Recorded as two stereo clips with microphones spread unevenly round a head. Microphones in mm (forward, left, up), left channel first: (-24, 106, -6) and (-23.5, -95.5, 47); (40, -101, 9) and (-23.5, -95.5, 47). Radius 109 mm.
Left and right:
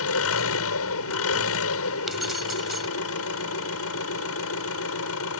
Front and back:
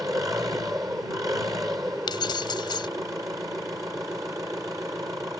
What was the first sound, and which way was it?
An engine running, 105° left.